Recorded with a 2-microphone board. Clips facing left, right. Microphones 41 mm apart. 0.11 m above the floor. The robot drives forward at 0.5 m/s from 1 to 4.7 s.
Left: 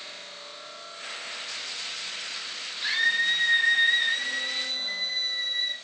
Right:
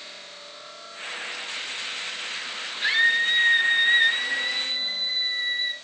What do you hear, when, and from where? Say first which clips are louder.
2.8 s a scream: right 4 dB; 30° right (ahead or behind), 1.5 m; by 5.7 s 25° right (ahead or behind), 1.9 m